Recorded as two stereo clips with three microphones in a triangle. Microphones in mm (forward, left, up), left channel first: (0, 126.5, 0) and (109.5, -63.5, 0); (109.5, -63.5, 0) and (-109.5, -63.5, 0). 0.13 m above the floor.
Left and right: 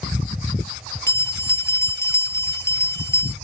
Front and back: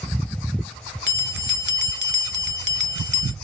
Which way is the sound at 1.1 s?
165° right.